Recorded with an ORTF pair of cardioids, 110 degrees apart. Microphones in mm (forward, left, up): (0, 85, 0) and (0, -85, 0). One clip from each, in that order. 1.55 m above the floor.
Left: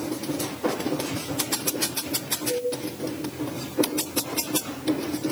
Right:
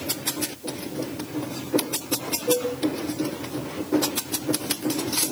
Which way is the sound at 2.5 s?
65° right.